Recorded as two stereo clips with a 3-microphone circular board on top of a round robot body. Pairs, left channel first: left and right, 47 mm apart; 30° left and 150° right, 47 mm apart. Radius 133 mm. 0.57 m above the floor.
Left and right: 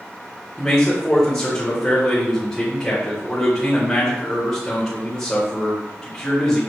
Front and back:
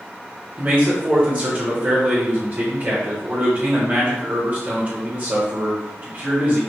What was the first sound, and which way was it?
A man speaking, 165° left.